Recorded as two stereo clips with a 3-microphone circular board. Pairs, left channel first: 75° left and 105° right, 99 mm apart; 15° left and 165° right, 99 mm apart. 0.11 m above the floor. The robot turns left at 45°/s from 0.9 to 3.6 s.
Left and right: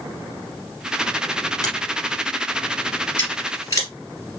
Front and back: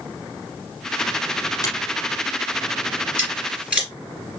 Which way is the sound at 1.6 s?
45° left.